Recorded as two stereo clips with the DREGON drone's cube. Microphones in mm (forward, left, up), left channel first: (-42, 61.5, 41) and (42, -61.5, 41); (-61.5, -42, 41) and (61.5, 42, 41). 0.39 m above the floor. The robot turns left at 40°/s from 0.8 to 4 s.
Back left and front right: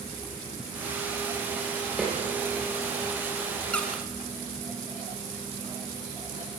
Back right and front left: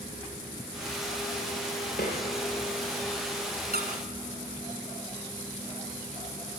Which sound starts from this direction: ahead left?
A squeak, at 3.7 s.